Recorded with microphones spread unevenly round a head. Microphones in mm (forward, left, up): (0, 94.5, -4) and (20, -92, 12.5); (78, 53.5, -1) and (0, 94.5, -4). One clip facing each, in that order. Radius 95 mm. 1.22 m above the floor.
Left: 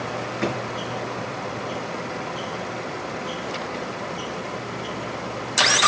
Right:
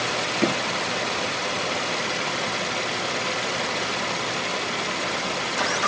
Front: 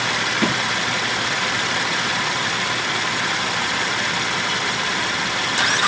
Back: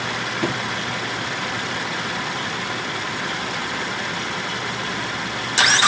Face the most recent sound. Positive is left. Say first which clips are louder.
# right 3 dB, front 2 dB
turn(degrees=-35)